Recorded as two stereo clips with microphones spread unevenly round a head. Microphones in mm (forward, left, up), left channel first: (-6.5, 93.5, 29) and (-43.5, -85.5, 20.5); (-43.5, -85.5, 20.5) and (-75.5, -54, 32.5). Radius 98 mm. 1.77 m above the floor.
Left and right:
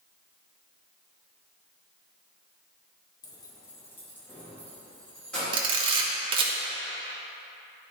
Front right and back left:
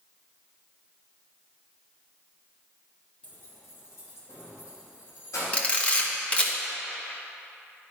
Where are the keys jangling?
50° left, 0.6 m; by 5.4 s 5° right, 2.5 m.